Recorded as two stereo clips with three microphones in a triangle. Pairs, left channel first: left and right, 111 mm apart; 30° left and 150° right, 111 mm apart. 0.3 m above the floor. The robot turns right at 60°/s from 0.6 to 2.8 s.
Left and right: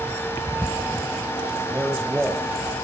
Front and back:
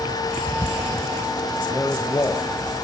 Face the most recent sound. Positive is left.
turn(degrees=45)